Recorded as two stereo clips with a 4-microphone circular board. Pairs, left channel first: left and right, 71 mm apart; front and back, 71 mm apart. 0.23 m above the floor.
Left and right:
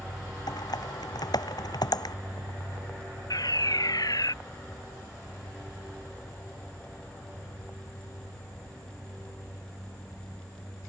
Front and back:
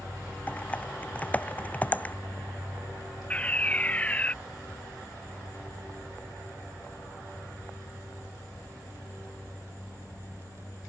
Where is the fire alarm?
70° left.